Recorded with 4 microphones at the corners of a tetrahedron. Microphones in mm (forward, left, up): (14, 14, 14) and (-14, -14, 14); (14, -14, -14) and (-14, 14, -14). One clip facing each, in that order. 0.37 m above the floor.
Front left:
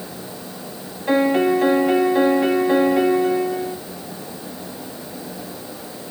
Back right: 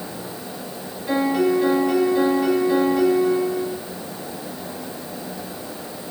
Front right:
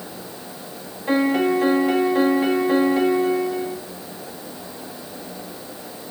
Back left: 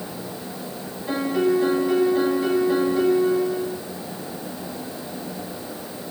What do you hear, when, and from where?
1.1 s a piano: straight ahead, 0.7 m